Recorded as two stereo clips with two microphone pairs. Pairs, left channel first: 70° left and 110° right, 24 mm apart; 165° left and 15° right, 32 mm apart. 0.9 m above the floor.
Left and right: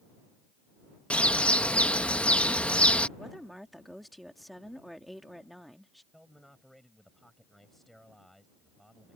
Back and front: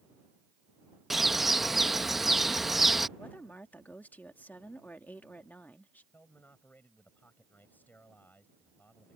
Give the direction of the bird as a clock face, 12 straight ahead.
10 o'clock.